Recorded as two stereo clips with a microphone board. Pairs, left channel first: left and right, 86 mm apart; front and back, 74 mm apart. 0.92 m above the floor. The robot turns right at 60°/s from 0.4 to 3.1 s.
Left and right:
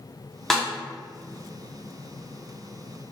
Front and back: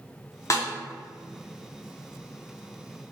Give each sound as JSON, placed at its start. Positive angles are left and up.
{"t": 0.5, "sound": "a snare drum", "azimuth_deg": 5, "distance_m": 0.6}